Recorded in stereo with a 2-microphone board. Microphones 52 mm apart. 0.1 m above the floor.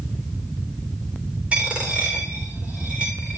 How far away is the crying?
No crying in this recording.